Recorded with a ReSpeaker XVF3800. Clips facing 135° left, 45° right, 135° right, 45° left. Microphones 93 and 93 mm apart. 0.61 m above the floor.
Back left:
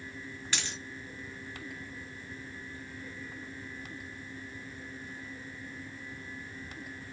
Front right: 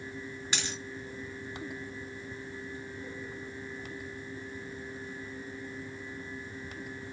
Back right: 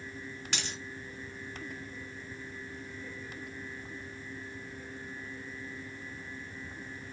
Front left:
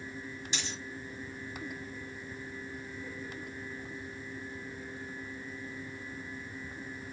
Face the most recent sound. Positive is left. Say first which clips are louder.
# front right 1 dB, back right 1 dB
turn(degrees=-120)